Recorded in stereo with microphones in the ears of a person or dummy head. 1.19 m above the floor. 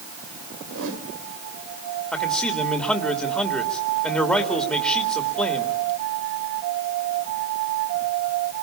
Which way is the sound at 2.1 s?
Centre (ahead or behind).